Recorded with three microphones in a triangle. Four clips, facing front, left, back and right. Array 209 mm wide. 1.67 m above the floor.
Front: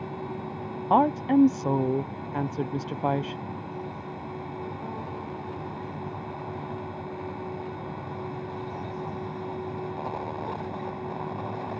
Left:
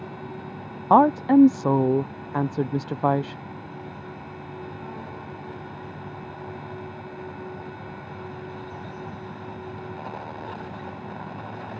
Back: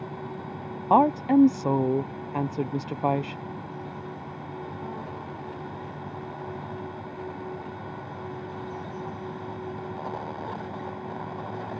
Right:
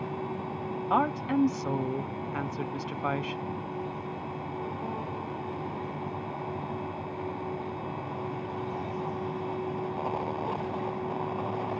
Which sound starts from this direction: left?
A woman speaking, at 0.9 s.